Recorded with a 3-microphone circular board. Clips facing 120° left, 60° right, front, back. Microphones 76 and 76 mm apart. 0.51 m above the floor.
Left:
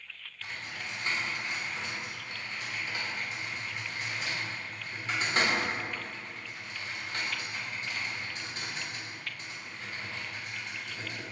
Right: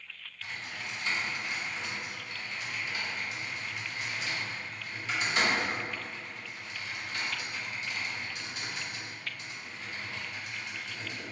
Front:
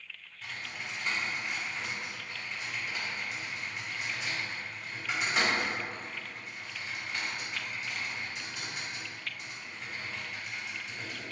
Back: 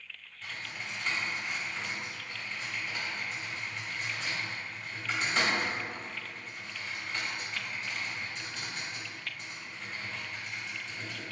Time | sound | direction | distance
0.4 | typing on a keyboard | 80° left | 1.3 m